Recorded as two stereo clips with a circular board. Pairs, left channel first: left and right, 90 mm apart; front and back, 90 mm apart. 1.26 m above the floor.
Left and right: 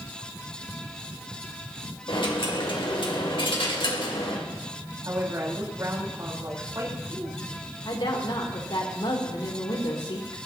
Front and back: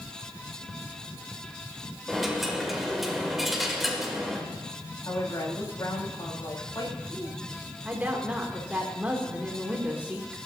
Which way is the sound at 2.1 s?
90° left.